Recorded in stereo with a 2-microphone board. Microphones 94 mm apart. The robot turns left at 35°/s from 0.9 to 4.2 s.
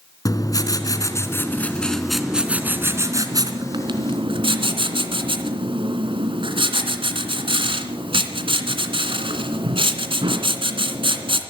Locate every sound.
0.2 s writing: 40° left, 2.5 m; by 11.4 s 75° right, 2.5 m